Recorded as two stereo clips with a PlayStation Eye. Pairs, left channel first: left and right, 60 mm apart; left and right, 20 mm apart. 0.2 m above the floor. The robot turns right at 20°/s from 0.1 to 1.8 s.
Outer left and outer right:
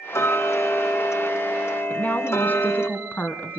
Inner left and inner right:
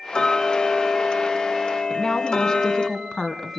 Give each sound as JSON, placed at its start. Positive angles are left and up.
{"t": 0.1, "sound": "ticking", "azimuth_deg": 75, "distance_m": 1.0}
{"t": 1.9, "sound": "a woman speaking", "side_deg": 30, "distance_m": 1.7}